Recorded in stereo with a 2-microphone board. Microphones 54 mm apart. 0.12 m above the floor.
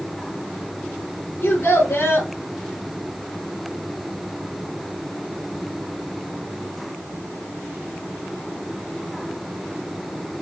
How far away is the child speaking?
About 3 m.